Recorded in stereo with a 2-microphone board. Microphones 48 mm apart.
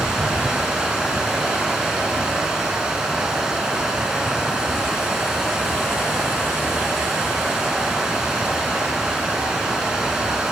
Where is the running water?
15° right (ahead or behind), 3.5 m.